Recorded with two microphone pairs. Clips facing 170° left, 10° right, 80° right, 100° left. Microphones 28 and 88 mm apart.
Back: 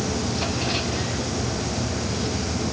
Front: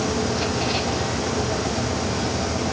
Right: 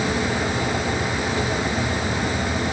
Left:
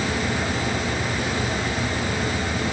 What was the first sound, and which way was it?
Only background noise.